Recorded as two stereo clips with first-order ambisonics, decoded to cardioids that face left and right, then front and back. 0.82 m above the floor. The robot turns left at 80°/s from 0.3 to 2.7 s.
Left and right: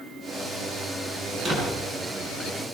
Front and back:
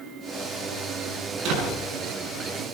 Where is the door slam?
150° right, 8 m; by 1.8 s straight behind, 8 m.